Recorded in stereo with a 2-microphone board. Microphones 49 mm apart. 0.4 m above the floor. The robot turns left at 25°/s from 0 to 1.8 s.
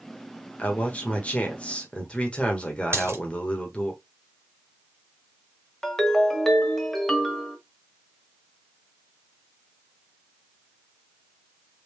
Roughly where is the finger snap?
No finger snap in this recording.